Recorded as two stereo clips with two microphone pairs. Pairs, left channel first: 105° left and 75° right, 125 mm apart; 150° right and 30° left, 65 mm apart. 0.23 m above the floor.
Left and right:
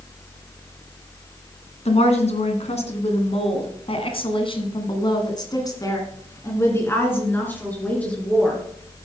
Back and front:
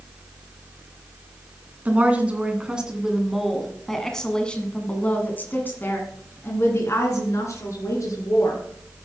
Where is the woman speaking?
90° left, 2 m; by 8.6 s 175° right, 3 m.